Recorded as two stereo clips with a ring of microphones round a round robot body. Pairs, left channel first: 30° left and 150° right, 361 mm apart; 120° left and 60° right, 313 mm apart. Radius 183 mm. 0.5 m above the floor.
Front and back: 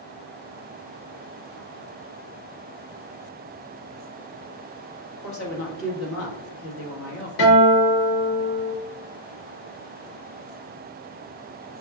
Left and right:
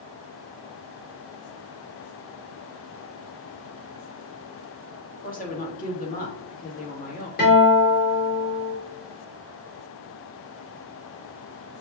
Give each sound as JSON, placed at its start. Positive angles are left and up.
{"t": 5.2, "sound": "a woman speaking", "azimuth_deg": 65, "distance_m": 1.7}
{"t": 7.4, "sound": "a guitar", "azimuth_deg": 60, "distance_m": 2.5}